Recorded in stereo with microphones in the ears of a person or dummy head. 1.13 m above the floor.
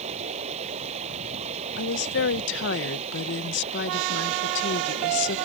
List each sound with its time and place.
0.0 s running water: 35° right (ahead or behind)
1.8 s a woman speaking: 60° left (ahead or behind)